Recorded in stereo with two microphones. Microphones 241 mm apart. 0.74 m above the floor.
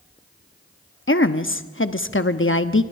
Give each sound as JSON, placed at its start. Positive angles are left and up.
{"t": 1.1, "sound": "a woman speaking", "side_deg": 55, "distance_m": 1.0}